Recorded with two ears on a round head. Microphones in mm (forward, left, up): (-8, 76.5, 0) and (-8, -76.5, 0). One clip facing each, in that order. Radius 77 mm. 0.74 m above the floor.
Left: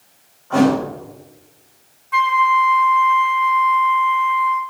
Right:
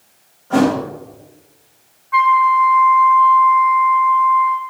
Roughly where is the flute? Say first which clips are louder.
Right 3 dB; left.